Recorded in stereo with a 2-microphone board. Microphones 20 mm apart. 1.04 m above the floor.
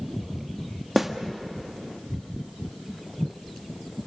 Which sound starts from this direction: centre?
A snare drum, at 1.0 s.